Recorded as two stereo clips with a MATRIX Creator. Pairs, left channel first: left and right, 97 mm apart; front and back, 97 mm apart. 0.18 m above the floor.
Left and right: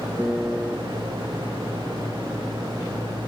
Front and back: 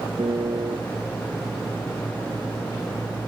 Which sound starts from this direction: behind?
A piano, at 0.2 s.